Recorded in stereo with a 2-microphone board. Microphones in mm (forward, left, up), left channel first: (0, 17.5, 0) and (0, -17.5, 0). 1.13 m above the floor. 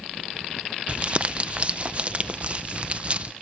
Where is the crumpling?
35° right (ahead or behind), 0.6 m.